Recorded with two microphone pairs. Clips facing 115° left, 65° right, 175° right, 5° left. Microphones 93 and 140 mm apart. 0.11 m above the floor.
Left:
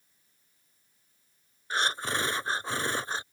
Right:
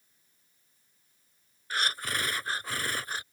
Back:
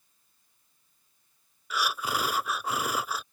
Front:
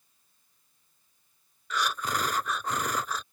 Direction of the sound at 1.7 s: 110° left.